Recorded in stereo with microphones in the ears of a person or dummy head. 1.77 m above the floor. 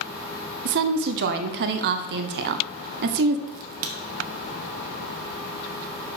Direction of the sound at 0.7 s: 60° right (ahead or behind).